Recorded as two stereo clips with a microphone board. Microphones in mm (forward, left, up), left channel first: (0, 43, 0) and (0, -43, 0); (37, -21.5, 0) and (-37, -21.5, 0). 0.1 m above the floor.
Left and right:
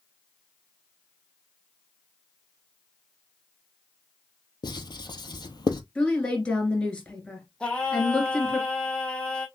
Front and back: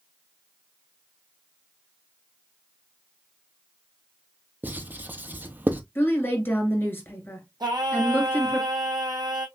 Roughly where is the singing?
Behind.